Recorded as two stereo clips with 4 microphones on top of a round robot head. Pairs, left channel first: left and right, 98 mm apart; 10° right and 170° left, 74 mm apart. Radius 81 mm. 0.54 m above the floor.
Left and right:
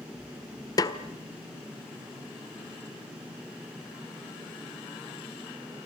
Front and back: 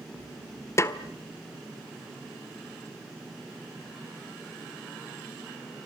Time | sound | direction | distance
0.8 | a snare drum | 40° left | 1.5 m